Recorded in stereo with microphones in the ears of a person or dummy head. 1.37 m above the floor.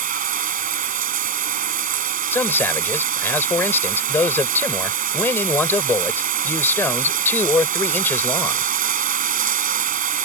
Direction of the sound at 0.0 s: 45° right (ahead or behind).